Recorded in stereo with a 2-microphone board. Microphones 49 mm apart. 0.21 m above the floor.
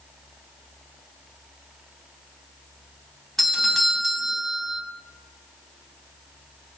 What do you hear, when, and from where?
3.4 s a doorbell: 5° left (ahead or behind), 1.6 m